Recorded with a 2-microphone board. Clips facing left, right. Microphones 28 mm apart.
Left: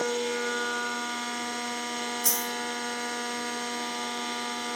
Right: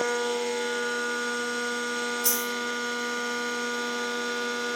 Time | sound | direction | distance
2.2 | a dropped coin | 10° right (ahead or behind) | 1.4 m